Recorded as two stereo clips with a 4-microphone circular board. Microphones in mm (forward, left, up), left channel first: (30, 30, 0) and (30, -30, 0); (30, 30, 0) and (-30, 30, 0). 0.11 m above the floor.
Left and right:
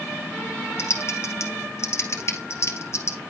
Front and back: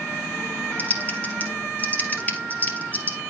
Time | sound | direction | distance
0.8 | typing on a keyboard | 60° left | 2.5 m